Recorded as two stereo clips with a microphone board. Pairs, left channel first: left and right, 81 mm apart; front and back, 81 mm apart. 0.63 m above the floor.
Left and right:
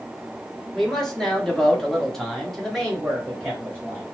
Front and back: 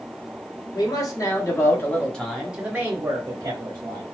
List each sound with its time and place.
0.8 s a man speaking: 5° left, 1.2 m; by 4.0 s straight behind, 1.2 m